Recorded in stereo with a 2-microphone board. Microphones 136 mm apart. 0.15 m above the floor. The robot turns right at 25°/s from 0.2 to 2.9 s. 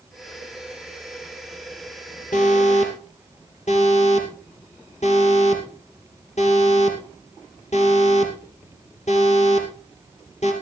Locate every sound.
2.3 s an alarm: 65° left (ahead or behind), 3 m; by 10.5 s 55° left (ahead or behind), 3 m